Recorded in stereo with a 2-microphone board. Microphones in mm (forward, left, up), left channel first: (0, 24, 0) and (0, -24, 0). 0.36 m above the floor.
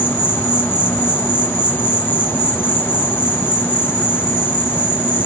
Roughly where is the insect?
Left.